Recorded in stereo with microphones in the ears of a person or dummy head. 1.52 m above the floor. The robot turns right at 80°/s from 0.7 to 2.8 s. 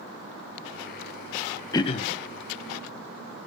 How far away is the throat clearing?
About 0.8 m.